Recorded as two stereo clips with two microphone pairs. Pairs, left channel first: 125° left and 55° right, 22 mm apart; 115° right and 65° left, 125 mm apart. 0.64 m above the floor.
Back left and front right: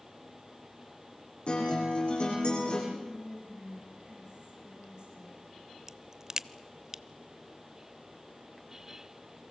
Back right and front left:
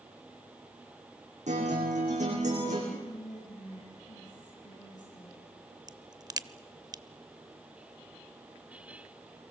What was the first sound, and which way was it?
A guitar, 85° left.